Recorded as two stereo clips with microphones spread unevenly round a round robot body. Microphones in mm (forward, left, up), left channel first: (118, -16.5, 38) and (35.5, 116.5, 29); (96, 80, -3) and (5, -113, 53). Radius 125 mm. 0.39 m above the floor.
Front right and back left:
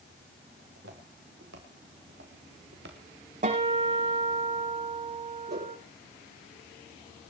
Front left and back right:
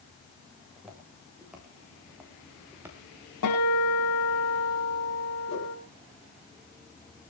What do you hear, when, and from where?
0.6 s footsteps: 155° left, 5.5 m; by 3.0 s 165° left, 3 m
3.4 s a guitar: 85° left, 9 m
5.5 s a whoosh: 105° left, 7.5 m